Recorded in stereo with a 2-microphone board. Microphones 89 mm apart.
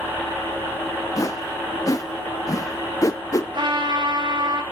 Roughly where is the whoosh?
Left.